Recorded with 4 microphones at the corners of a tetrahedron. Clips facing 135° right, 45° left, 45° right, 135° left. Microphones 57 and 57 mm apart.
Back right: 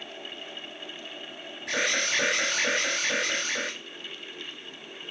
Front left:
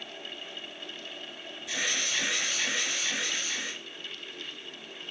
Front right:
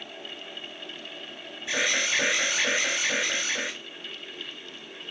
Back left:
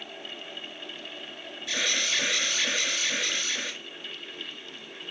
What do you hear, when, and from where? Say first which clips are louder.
1.7 s an alarm: back right 5 dB, front right 3 dB; 110° right, 5.5 m